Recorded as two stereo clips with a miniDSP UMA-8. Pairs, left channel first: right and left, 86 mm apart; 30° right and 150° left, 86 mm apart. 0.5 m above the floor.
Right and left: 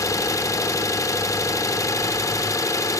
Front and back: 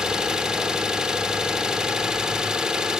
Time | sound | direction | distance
0.0 | an engine running | 130° right | 0.8 m